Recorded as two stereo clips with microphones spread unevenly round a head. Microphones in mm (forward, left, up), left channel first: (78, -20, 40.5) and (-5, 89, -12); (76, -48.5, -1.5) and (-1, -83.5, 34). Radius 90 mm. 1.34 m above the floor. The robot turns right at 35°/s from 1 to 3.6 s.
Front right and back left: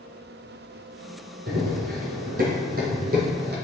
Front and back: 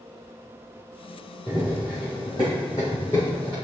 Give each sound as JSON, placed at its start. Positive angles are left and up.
{"t": 1.5, "sound": "running footsteps", "azimuth_deg": 95, "distance_m": 2.5}